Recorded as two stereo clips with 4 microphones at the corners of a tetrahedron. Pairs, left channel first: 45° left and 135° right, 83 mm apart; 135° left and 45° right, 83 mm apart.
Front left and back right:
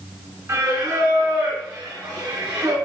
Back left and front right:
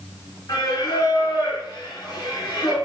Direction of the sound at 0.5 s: 170° left.